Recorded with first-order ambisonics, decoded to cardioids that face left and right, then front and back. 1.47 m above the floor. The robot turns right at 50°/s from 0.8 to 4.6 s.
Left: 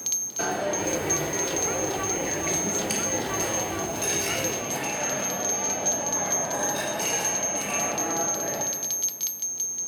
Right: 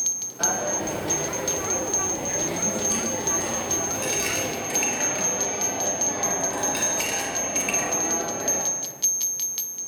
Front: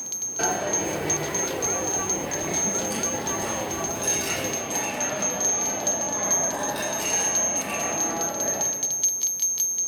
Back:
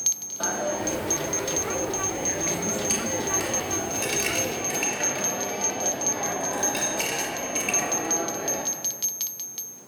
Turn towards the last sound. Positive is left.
turn(degrees=-135)